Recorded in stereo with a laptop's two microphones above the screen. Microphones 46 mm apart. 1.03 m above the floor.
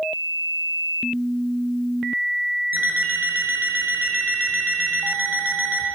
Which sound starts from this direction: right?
An alarm clock, at 2.7 s.